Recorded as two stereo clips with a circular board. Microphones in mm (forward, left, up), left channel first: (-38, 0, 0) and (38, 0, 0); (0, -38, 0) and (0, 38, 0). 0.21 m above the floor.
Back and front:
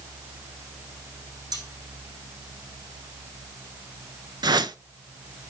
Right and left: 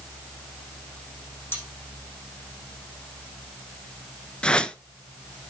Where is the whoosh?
15° right, 0.5 m.